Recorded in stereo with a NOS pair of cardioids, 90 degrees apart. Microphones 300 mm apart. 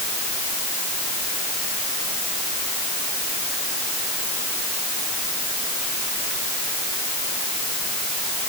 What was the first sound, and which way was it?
Only background noise.